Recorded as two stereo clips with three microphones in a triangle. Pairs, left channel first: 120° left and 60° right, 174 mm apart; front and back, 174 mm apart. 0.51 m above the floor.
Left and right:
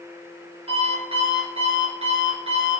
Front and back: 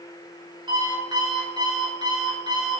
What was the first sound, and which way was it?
An alarm clock, 115° right.